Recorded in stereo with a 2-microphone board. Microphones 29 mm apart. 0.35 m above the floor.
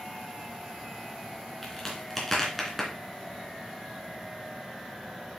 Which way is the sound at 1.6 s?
10° left (ahead or behind).